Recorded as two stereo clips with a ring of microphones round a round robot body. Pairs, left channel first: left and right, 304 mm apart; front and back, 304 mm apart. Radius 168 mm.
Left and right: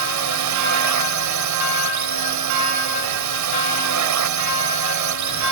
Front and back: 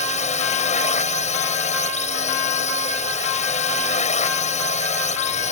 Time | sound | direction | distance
0.0 | a drone | 65° right | ?